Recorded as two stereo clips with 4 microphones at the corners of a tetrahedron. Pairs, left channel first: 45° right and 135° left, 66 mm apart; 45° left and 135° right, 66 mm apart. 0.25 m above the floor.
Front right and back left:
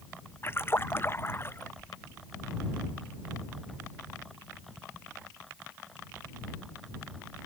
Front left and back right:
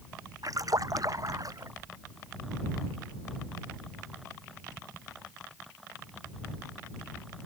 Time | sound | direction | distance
0.4 | a splash | 100° right | ?